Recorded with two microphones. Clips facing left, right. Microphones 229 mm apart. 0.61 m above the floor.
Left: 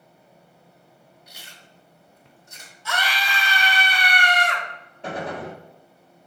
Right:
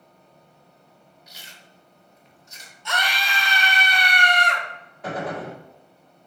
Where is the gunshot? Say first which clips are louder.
Right 1 dB; 30° left (ahead or behind), 1.5 m.